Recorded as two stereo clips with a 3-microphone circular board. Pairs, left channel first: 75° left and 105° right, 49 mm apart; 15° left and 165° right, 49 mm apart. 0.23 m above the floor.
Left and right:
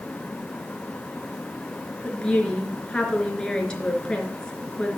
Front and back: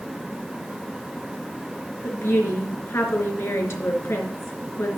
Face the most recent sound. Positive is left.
turn(degrees=5)